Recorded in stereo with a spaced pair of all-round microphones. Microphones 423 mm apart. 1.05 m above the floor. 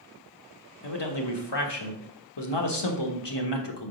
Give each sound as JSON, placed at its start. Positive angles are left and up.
{"t": 0.8, "sound": "a man speaking", "side_deg": 70, "distance_m": 1.2}